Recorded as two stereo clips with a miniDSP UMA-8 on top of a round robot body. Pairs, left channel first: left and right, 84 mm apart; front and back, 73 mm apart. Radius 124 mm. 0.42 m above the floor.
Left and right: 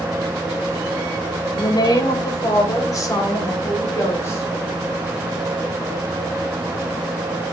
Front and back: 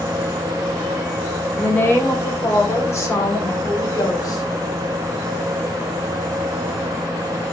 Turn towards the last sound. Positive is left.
turn(degrees=30)